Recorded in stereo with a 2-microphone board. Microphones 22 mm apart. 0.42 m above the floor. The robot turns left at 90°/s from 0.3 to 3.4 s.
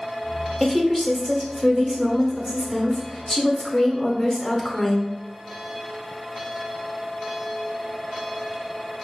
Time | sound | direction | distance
0.6 | a woman speaking | 20° left (ahead or behind) | 0.9 m